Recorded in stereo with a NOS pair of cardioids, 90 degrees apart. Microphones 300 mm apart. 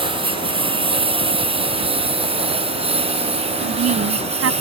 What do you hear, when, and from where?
0.0 s a lawn mower: 15° right; by 4.6 s 20° right
3.6 s a woman speaking: 55° right